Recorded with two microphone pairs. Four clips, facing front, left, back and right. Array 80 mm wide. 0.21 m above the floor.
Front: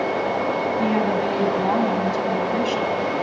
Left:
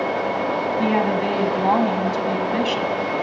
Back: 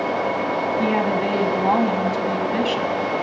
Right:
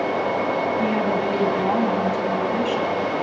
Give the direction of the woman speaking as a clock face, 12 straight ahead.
8 o'clock.